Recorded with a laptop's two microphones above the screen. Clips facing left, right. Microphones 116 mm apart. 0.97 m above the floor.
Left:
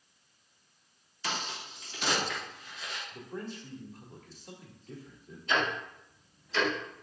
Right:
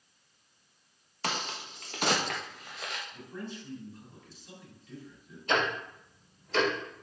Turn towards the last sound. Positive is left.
turn(degrees=-60)  # may be behind; listen again after turning